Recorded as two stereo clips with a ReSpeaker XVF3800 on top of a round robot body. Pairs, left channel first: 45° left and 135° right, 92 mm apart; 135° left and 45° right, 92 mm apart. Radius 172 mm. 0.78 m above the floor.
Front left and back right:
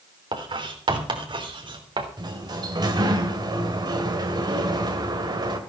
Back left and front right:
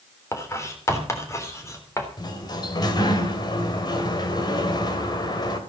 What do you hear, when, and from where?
0.3 s writing: 165° right, 3.5 m
2.2 s a sliding door: straight behind, 2.5 m